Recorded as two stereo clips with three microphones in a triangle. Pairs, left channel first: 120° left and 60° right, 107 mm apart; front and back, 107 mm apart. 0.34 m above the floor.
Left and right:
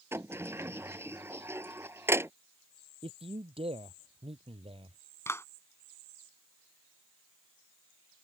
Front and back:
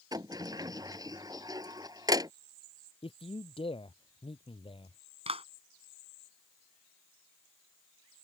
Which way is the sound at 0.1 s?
125° right.